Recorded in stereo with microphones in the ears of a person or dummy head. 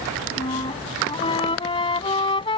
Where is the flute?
25° left (ahead or behind).